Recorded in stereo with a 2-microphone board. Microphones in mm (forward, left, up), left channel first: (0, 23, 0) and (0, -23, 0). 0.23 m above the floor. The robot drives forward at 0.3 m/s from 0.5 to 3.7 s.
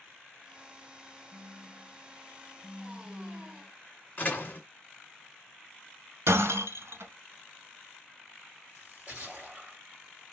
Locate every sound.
1.3 s a phone buzzing: 55° right (ahead or behind), 1.7 m; by 3.7 s 40° right (ahead or behind), 2 m
4.2 s a door slam: 40° left (ahead or behind), 1.7 m
6.3 s breaking glass: 75° right (ahead or behind), 0.9 m
8.8 s a splash: 25° right (ahead or behind), 2.5 m